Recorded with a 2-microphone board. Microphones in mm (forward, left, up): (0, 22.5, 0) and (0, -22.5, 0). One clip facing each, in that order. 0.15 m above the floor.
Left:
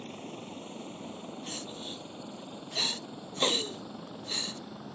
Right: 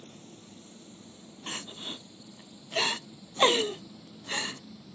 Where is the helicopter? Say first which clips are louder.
Left 8 dB; 55° left (ahead or behind); by 5.0 s 50° left (ahead or behind).